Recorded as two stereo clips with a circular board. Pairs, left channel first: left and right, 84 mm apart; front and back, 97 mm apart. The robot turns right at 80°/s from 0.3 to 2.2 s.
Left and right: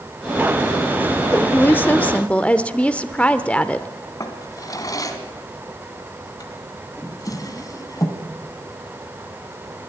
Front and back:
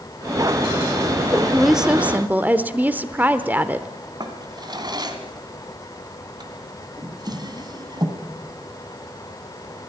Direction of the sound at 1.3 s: 70° left.